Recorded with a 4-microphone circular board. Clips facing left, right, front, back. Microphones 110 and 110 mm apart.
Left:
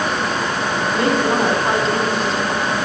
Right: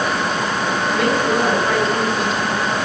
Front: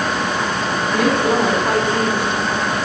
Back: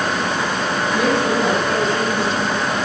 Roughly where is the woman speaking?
Ahead left.